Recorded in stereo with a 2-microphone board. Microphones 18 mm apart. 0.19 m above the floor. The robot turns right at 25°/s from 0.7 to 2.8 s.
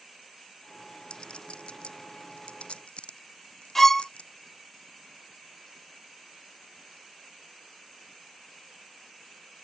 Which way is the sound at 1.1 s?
55° left (ahead or behind).